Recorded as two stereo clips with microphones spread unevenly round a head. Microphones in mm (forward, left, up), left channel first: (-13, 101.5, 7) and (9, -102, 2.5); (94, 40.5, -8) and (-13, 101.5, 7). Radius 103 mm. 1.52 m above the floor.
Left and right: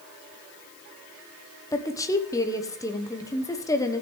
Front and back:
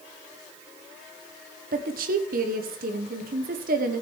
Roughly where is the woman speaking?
Behind.